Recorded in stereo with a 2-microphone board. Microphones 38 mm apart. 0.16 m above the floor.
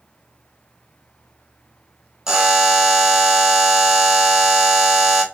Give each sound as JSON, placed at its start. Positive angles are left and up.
{"t": 2.3, "sound": "a buzzer", "side_deg": -15, "distance_m": 1.0}